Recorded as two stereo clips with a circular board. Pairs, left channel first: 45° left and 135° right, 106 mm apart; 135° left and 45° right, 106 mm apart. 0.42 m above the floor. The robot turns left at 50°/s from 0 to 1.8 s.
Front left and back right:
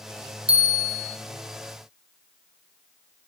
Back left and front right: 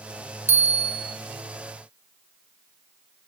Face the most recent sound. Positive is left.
turn(degrees=135)